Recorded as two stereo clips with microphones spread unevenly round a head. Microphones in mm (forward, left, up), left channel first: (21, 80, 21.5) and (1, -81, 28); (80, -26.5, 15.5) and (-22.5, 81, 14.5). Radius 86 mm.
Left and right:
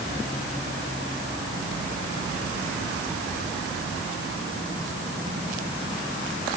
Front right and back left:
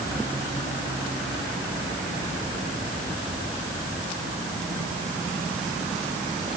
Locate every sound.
Only background noise.